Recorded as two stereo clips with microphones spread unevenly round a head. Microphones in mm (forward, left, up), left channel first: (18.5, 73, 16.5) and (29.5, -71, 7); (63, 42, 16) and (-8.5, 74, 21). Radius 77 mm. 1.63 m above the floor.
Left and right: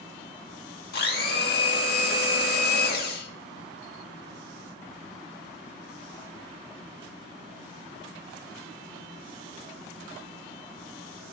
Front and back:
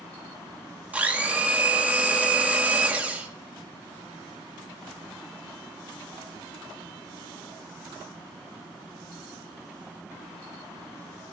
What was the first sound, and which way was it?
A blender, 85° left.